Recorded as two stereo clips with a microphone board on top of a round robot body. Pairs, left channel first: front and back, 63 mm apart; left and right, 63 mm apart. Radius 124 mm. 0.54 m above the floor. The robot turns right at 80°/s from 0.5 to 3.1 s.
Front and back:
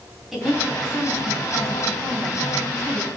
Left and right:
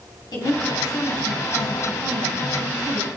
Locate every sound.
0.3 s a woman speaking: 95° left, 4.5 m; by 3.1 s 60° right, 4.5 m